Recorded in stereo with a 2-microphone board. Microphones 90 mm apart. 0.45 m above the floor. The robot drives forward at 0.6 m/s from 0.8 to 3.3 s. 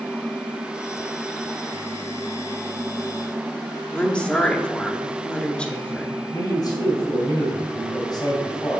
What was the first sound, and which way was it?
A woman speaking, 10° left (ahead or behind).